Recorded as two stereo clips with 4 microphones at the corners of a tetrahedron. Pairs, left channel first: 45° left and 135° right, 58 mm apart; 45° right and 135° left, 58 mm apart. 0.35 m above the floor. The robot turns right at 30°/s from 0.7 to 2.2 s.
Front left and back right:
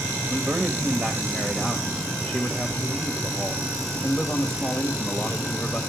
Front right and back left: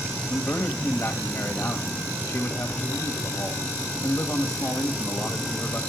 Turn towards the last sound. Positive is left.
turn(degrees=-35)